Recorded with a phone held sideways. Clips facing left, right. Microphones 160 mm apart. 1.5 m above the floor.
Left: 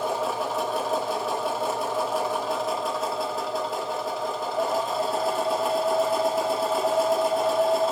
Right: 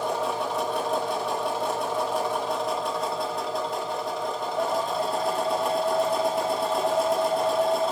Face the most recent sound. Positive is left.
turn(degrees=0)  # may be behind; listen again after turning